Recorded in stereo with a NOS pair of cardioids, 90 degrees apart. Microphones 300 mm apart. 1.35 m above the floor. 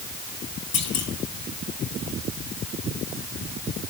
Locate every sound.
0.7 s a clunk: 60° left, 5 m